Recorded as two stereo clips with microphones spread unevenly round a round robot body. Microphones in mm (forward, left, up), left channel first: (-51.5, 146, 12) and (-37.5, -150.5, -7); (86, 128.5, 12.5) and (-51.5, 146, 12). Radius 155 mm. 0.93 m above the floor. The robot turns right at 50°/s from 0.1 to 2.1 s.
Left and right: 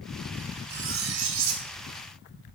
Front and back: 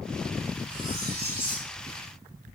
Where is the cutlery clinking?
145° right, 1.5 m; by 1.7 s 100° right, 1.5 m.